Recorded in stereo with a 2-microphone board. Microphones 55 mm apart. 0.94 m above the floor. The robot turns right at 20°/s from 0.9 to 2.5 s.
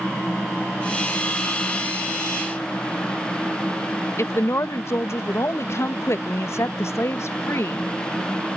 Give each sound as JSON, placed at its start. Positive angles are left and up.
{"t": 4.2, "sound": "a woman speaking", "side_deg": 55}